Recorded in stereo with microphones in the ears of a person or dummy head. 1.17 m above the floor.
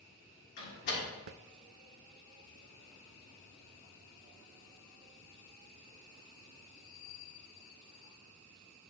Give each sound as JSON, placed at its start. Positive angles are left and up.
{"t": 0.6, "sound": "a door slam", "side_deg": 55, "distance_m": 2.0}